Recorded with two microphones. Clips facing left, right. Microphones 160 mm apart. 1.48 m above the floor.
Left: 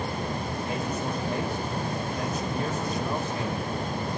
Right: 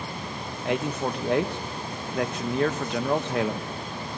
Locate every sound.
0.7 s a man speaking: 80° right, 2 m